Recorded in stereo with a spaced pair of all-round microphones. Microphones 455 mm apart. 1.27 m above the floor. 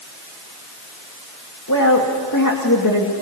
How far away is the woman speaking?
About 2.5 m.